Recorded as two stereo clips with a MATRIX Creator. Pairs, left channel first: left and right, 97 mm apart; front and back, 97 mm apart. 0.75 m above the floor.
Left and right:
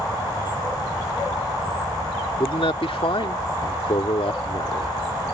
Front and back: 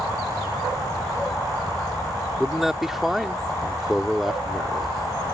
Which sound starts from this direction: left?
A man speaking, at 2.4 s.